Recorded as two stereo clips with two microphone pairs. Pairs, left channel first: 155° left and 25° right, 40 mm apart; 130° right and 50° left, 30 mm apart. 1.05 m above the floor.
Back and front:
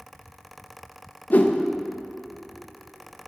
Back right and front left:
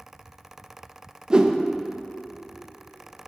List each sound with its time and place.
1.3 s a whoosh: 105° left, 0.7 m